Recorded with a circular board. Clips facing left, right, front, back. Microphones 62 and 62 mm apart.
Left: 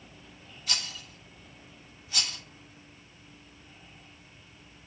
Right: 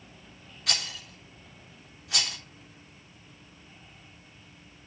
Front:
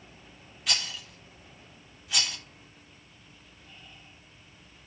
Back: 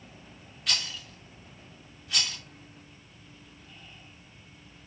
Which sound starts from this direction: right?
A rattle, at 0.7 s.